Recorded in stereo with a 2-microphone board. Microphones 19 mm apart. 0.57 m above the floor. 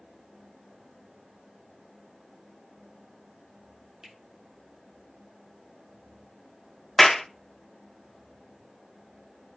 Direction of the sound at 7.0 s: 10° left (ahead or behind).